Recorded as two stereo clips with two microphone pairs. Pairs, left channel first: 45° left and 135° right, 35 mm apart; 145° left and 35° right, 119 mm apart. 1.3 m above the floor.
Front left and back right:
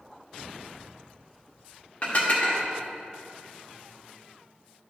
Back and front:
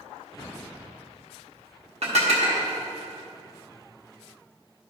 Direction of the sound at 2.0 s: 10° right.